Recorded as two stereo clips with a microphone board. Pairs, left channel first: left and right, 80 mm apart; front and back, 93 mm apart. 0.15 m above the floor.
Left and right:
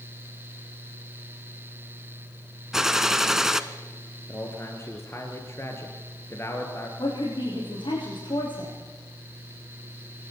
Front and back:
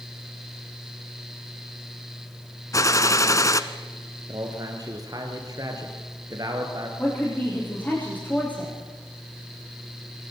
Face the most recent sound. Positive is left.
turn(degrees=75)